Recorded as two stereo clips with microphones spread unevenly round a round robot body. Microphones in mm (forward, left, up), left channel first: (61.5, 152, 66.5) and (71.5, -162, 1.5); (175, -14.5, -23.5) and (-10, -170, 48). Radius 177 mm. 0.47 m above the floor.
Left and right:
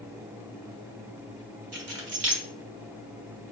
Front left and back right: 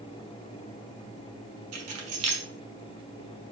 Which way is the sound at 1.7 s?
125° right.